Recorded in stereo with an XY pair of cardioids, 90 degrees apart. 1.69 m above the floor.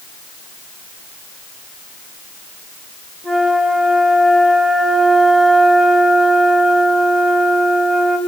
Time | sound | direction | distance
3.2 | a flute | 30° right | 4.5 m